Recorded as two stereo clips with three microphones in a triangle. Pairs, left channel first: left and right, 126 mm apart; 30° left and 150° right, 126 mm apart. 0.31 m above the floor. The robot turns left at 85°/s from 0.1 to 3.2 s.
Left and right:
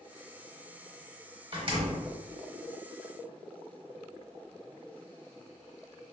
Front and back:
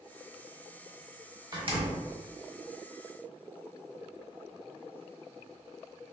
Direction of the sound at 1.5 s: 110° right.